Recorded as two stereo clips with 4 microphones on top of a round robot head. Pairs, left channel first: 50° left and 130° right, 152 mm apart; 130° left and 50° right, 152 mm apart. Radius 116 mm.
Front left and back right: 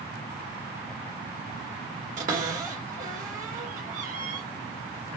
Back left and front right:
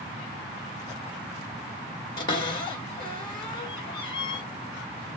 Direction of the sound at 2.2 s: 170° right.